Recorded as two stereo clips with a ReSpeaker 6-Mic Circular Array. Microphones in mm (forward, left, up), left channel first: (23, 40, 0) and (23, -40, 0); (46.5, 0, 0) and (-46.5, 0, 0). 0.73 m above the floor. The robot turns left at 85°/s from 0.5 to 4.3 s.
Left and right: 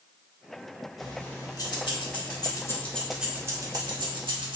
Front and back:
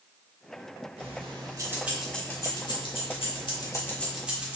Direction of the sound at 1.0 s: Straight behind.